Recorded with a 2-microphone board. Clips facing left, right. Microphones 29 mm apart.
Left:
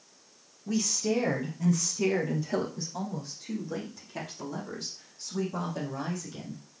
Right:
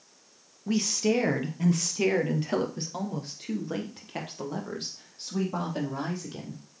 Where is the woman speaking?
40° right (ahead or behind), 2 m; by 6.6 s 50° right (ahead or behind), 3.5 m.